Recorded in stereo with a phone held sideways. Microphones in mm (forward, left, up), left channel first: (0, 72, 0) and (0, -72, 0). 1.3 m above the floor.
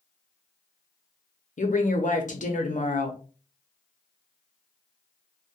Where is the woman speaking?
65° left (ahead or behind), 0.6 m.